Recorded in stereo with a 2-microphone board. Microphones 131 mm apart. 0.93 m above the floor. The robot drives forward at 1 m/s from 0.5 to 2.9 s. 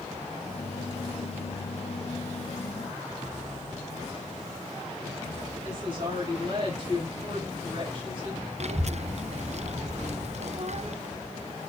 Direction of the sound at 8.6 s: 55° right (ahead or behind).